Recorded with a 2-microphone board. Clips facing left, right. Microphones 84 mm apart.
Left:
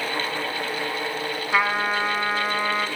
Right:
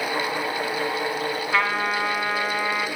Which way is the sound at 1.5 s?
10° left (ahead or behind).